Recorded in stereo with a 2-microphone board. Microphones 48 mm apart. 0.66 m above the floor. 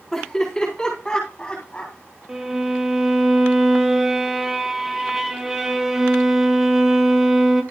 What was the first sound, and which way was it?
Laughter, 15° left (ahead or behind).